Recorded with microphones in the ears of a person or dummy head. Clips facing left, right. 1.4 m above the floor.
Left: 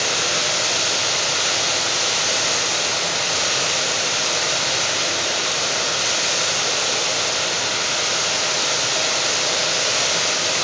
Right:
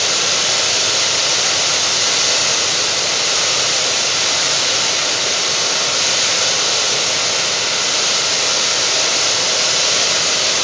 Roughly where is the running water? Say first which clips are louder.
Right 1 dB; right.